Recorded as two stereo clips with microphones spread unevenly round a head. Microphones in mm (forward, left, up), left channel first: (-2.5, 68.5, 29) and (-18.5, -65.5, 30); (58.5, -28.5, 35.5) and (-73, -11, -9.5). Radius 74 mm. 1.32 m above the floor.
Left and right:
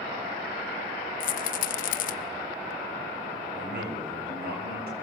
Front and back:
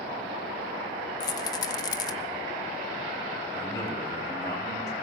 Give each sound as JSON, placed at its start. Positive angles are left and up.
{"t": 1.2, "sound": "a rattle", "azimuth_deg": 50, "distance_m": 0.7}
{"t": 3.5, "sound": "a man speaking", "azimuth_deg": -75, "distance_m": 8.5}